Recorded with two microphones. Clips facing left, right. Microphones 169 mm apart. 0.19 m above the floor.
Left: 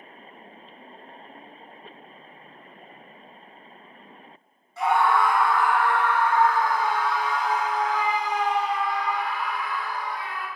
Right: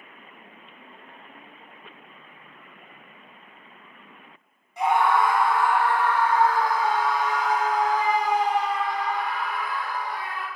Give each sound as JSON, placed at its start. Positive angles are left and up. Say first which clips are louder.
{"t": 4.8, "sound": "a scream", "louder": "even", "side_deg": -15, "distance_m": 2.0}